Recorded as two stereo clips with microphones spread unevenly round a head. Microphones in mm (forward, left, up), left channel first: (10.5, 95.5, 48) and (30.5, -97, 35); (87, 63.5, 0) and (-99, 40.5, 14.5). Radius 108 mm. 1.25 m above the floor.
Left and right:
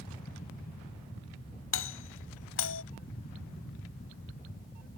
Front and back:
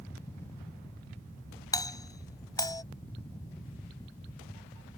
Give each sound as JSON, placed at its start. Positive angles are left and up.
{"t": 1.7, "sound": "a doorbell", "azimuth_deg": 80}